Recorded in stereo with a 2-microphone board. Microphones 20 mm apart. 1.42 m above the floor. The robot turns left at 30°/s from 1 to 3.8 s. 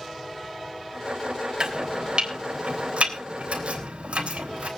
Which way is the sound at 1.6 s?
40° right (ahead or behind).